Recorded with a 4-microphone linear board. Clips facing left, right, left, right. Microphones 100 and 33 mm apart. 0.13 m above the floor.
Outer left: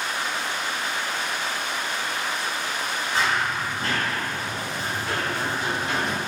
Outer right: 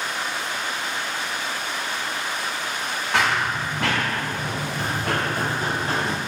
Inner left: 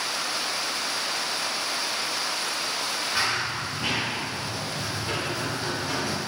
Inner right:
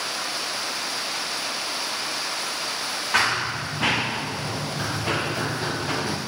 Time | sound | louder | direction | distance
3.1 | running footsteps | outer right 3 dB, inner right 6 dB | 75° right (ahead or behind) | 2.0 m